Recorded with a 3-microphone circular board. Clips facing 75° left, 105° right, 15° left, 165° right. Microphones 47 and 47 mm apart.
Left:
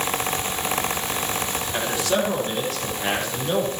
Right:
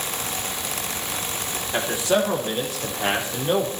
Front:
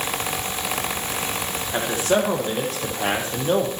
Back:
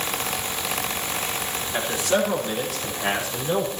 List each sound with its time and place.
1.7 s a man speaking: 35° right, 6.5 m; by 3.7 s 30° right, 5 m